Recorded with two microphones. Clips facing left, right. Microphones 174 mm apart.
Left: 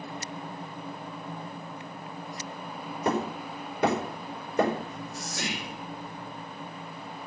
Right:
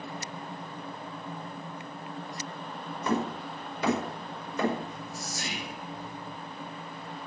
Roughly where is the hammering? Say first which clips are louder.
Left 1 dB; left.